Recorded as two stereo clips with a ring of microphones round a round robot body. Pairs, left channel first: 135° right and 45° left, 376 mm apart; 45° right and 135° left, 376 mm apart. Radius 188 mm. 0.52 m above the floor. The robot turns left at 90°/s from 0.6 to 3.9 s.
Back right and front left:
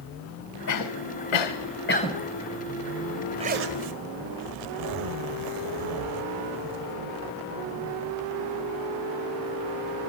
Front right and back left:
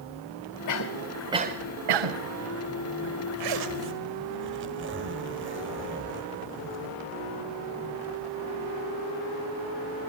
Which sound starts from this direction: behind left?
A zipper, at 3.4 s.